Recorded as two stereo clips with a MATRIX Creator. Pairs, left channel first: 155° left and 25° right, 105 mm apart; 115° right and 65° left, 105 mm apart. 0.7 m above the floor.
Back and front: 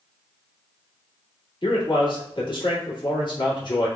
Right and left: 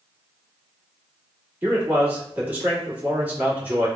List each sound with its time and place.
1.6 s a man speaking: 135° left, 1.8 m